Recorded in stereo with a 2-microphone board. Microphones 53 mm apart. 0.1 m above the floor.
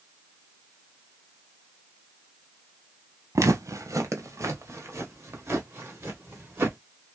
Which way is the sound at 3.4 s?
75° right (ahead or behind).